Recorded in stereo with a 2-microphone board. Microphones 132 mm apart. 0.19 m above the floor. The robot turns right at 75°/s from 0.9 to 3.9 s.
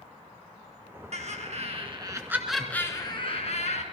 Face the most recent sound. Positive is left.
turn(degrees=100)